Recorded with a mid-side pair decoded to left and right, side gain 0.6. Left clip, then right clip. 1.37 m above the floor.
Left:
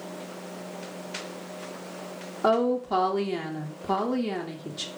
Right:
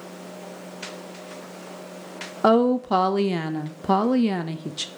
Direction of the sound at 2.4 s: 35° right.